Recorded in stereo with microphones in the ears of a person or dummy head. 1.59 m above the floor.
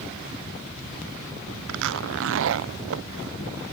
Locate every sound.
1.7 s a zipper: 70° right (ahead or behind)